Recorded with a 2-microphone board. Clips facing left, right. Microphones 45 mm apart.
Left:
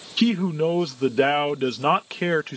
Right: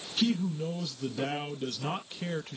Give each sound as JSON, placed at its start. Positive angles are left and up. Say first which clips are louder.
{"t": 0.2, "sound": "a man speaking", "louder": "left 8 dB", "side_deg": 85}